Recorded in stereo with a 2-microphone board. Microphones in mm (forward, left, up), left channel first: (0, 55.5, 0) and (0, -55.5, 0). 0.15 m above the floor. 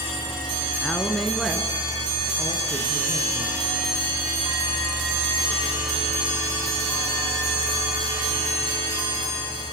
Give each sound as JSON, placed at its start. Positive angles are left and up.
{"t": 0.8, "sound": "a woman speaking", "side_deg": 10, "distance_m": 2.0}